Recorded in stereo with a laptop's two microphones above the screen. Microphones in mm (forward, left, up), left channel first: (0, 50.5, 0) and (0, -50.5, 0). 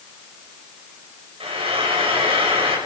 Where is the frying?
70° right (ahead or behind), 5.5 m.